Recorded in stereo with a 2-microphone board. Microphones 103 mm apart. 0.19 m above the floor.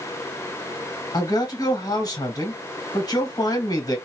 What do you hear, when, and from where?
1.1 s a man speaking: 40° left (ahead or behind), 2 m